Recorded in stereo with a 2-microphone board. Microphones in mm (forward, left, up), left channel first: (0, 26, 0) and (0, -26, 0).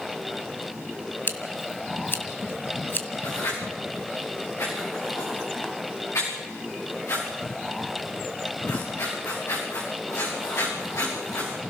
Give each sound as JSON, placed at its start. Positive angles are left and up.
{"t": 1.3, "sound": "scissors", "side_deg": 45, "distance_m": 1.7}
{"t": 3.2, "sound": "writing", "side_deg": 60, "distance_m": 7.5}